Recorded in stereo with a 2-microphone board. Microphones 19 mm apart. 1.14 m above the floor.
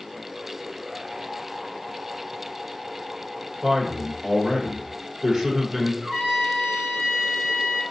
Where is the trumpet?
70° right (ahead or behind), 2.0 m.